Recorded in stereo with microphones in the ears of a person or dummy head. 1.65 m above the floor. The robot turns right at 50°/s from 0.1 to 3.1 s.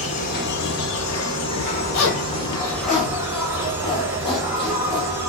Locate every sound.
0.0 s an insect: 40° left, 1.6 m; by 5.3 s 170° right, 1.6 m
1.9 s a zipper: 85° left, 1.6 m; by 5.2 s 25° left (ahead or behind), 1.6 m